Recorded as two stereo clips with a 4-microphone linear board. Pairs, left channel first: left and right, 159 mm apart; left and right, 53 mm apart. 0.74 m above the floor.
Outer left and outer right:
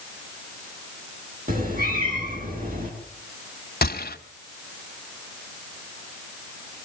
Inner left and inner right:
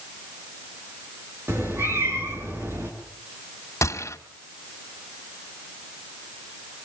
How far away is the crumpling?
No crumpling in this recording.